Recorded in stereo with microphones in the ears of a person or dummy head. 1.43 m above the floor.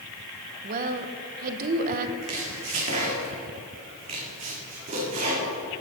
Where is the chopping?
45° right (ahead or behind), 2 m.